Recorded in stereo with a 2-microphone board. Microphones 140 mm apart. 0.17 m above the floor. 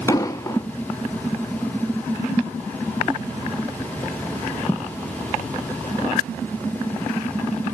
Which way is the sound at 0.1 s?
25° left (ahead or behind).